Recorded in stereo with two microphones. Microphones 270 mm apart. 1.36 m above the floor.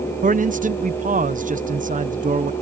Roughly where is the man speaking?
Right.